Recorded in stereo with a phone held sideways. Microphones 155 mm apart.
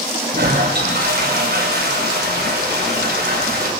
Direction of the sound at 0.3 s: 75° right (ahead or behind).